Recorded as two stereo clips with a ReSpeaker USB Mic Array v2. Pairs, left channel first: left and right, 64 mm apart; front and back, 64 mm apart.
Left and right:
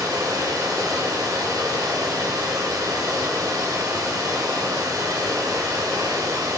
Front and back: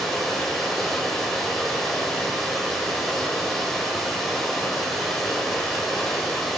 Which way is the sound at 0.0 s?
85° right.